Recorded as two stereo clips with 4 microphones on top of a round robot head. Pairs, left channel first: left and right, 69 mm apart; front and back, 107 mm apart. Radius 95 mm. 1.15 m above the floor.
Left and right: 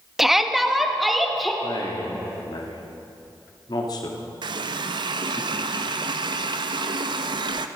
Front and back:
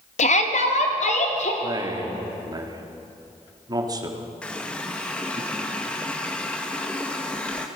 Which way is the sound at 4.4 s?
80° right.